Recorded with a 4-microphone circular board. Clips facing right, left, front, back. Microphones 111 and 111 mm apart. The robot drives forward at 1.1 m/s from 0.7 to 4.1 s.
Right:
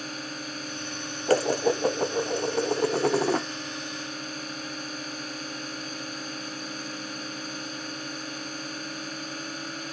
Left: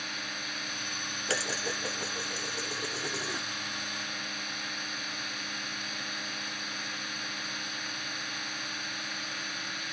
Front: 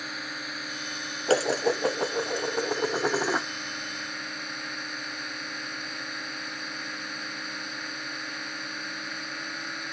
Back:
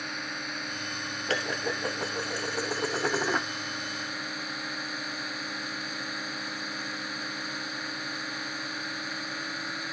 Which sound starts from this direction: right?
A drone, at 0.0 s.